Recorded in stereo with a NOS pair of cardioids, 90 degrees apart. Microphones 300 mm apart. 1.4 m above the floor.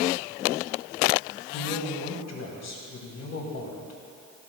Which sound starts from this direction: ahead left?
A man speaking, at 1.5 s.